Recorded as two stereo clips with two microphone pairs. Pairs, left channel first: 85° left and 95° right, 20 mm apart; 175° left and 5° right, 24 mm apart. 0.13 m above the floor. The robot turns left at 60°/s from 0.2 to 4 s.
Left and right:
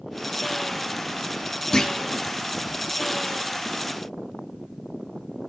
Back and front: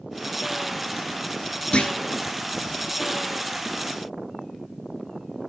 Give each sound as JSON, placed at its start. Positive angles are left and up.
{"t": 1.7, "sound": "a clunk", "azimuth_deg": 140, "distance_m": 1.0}